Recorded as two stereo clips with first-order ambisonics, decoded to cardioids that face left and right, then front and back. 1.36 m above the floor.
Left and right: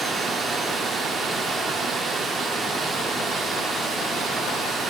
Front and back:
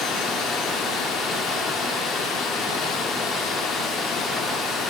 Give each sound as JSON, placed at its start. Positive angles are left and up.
{"t": 0.0, "sound": "running water", "azimuth_deg": -30, "distance_m": 1.0}